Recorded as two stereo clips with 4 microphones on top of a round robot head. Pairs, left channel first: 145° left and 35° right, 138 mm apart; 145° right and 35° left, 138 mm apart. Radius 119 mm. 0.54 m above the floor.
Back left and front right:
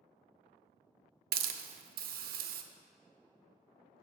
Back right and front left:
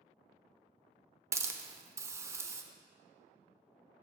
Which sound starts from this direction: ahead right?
A hiss, at 1.3 s.